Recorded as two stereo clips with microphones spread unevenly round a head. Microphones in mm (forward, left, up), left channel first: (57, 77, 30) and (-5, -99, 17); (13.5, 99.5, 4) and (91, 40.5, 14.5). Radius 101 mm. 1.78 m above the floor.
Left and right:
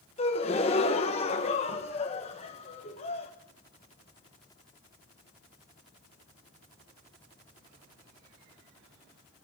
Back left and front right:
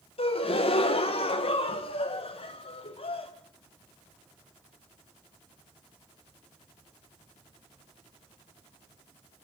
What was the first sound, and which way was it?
A gasp, 125° left.